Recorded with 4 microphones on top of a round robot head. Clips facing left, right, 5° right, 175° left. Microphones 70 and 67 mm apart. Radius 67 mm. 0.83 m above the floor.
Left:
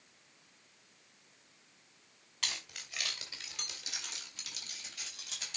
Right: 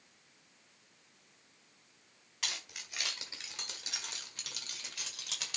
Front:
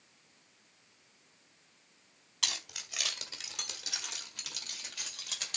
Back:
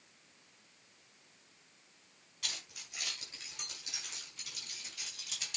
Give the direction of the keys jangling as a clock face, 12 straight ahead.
12 o'clock.